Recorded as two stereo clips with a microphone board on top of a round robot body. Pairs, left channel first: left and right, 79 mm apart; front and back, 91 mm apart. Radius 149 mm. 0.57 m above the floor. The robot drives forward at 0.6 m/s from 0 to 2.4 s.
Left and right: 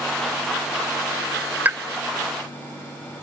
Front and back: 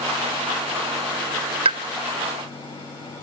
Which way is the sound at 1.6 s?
160° right.